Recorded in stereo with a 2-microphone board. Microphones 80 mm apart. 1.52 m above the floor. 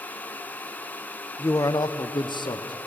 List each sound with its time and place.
1.4 s a man speaking: 30° left (ahead or behind), 0.6 m; by 2.8 s 65° left (ahead or behind), 1.0 m